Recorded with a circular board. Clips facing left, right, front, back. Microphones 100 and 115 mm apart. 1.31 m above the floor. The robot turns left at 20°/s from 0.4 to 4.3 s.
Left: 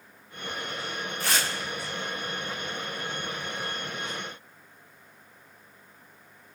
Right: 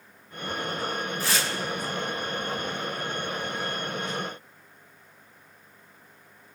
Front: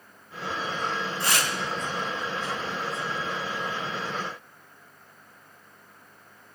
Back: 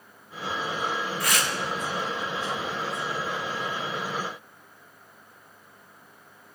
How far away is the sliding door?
No sliding door in this recording.